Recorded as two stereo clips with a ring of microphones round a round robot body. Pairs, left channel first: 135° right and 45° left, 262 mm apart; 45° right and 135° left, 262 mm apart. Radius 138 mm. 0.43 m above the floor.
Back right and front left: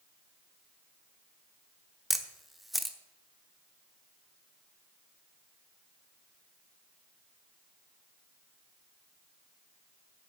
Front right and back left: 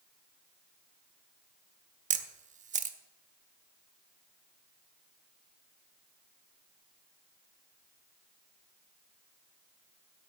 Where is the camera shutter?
135° left, 1.0 m.